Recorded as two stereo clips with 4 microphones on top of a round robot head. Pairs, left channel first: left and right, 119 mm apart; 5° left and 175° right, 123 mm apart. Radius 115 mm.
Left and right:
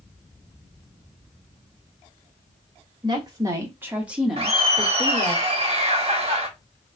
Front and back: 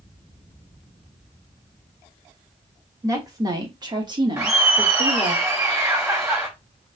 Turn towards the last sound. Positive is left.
turn(degrees=-105)